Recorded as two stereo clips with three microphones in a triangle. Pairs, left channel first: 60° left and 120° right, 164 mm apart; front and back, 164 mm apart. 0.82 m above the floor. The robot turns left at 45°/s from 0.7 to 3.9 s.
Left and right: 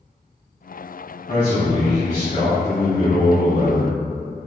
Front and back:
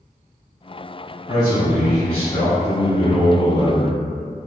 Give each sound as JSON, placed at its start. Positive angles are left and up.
{"t": 1.3, "sound": "a man speaking", "azimuth_deg": 120, "distance_m": 1.8}